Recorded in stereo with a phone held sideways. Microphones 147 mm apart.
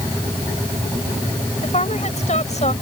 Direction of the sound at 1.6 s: 50° left (ahead or behind).